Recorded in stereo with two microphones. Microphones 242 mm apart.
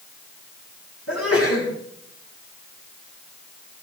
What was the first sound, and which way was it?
A sneeze, 75° left (ahead or behind).